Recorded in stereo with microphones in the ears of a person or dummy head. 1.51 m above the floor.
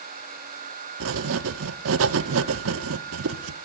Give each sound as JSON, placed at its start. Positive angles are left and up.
{"t": 1.0, "sound": "writing", "side_deg": -80, "distance_m": 0.6}